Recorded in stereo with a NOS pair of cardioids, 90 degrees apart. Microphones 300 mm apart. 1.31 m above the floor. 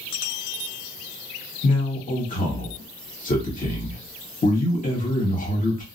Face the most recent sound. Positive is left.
turn(degrees=25)